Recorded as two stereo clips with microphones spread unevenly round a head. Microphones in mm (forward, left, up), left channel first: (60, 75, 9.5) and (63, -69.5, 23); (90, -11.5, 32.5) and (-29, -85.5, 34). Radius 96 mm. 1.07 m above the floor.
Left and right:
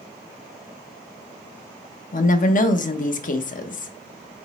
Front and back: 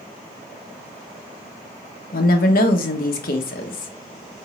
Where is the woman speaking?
65° left, 0.9 m.